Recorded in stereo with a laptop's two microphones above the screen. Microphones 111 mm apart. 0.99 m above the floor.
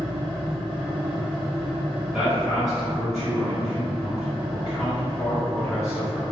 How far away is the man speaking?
About 1.9 m.